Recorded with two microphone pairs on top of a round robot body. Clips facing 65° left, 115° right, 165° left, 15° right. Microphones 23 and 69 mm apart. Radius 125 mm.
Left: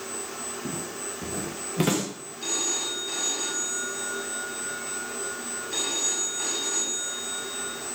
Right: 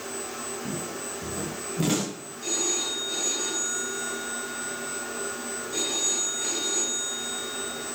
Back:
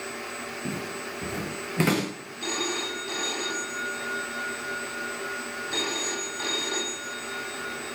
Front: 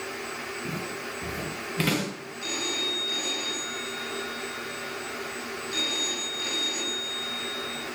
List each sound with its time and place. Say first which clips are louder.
0.7 s footsteps: right 1 dB, back 2 dB; 100° left, 8 m
2.4 s a phone ringing: right 1 dB, back 3 dB; 125° left, 5.5 m